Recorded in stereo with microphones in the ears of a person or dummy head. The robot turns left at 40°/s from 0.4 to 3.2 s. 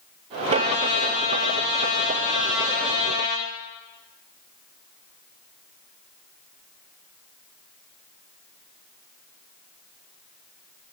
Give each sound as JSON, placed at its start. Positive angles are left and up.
{"t": 0.5, "sound": "a trumpet", "azimuth_deg": -70, "distance_m": 1.3}